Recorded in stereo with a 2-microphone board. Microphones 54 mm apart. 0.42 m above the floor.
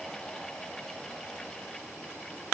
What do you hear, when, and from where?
Only background noise.